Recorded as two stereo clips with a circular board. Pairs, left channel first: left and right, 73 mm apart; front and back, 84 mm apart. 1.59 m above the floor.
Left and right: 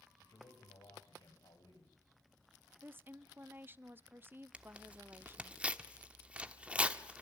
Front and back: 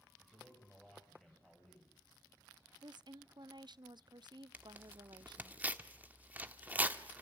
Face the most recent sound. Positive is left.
turn(degrees=-135)